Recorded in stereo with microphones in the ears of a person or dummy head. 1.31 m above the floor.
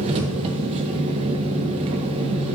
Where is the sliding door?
I don't hear a sliding door.